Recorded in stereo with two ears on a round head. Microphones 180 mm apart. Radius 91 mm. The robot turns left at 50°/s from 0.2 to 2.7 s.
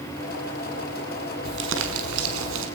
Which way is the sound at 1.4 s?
50° right.